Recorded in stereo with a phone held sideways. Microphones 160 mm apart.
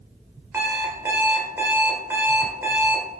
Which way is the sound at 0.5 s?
15° right (ahead or behind).